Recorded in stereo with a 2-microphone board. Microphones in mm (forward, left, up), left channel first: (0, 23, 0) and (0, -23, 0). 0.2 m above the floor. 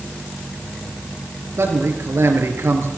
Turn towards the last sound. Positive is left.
turn(degrees=-70)  # may be behind; listen again after turning